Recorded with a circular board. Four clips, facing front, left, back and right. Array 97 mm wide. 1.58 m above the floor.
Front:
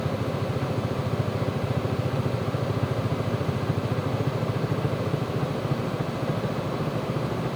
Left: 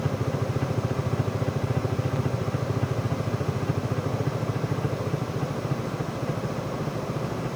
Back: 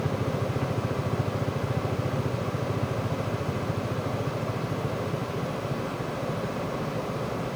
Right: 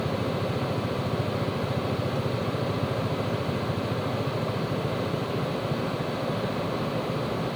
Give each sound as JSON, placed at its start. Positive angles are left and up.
{"t": 0.0, "sound": "a helicopter", "azimuth_deg": 110}